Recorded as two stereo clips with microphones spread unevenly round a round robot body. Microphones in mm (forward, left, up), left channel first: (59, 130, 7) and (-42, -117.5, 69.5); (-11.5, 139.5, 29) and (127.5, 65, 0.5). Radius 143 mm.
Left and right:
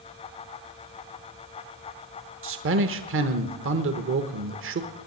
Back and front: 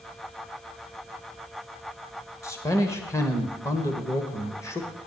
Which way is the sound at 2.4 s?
130° right.